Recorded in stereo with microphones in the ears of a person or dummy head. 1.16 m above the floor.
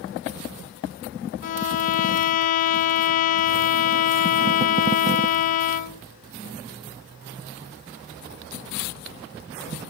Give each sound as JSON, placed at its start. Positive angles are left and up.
{"t": 1.4, "sound": "a violin", "side_deg": 45, "distance_m": 0.5}